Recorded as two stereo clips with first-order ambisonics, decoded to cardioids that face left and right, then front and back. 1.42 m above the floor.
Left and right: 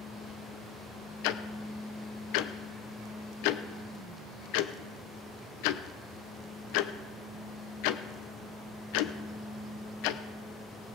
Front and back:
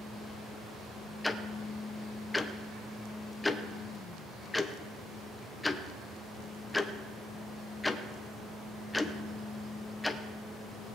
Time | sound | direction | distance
1.2 | ticking | 80° left | 0.6 m